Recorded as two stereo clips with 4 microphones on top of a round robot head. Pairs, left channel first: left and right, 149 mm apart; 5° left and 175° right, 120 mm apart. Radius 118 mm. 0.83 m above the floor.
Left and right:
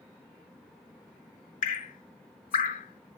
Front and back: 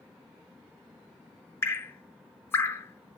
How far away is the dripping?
About 0.6 m.